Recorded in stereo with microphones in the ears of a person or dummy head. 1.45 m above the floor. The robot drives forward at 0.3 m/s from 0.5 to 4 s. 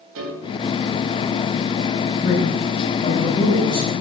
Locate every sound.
0.1 s a piano: 70° right (ahead or behind), 0.9 m
2.2 s a man speaking: 60° left (ahead or behind), 1.0 m; by 3.9 s 40° left (ahead or behind), 1.3 m